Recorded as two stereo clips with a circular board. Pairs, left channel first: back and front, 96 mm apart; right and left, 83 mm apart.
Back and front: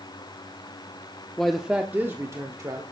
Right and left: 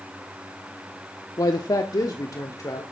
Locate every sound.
1.4 s a man speaking: 95° right, 0.9 m; by 2.8 s 50° right, 1.6 m